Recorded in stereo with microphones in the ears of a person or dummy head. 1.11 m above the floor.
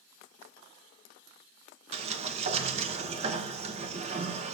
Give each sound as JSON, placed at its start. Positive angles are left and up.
{"t": 1.9, "sound": "a sliding door", "side_deg": -35, "distance_m": 1.1}